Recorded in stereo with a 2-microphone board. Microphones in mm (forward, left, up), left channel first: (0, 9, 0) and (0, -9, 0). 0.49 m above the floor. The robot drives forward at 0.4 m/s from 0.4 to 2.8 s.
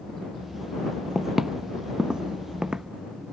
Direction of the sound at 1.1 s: 5° right (ahead or behind).